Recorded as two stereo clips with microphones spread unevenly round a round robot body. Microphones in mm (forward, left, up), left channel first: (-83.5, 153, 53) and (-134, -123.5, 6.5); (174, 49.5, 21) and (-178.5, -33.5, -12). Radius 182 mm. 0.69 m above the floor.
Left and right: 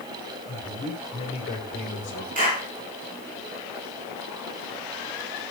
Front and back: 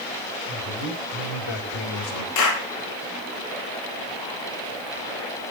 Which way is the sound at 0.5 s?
5° right.